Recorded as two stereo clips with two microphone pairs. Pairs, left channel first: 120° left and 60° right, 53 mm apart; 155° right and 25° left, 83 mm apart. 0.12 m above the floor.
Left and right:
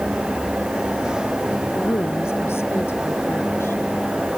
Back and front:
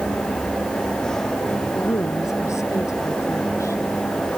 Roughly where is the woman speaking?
Behind left.